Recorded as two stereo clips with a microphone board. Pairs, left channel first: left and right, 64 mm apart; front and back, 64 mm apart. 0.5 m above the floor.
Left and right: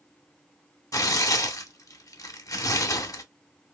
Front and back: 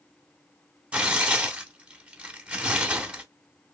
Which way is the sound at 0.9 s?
110° left.